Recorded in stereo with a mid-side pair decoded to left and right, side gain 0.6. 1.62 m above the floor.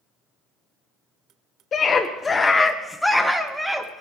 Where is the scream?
40° left, 1.0 m; by 4.0 s 15° right, 1.7 m.